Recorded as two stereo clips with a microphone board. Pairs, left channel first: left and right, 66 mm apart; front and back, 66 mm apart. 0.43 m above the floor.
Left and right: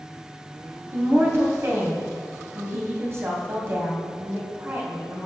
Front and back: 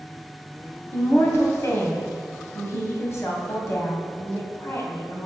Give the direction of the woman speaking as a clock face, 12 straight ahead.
1 o'clock.